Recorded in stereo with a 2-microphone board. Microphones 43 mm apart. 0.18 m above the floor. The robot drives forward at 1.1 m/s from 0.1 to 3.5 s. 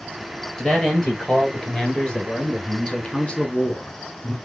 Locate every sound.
0.6 s a man speaking: 10° left (ahead or behind), 4.5 m; by 4.3 s 30° left (ahead or behind), 1.9 m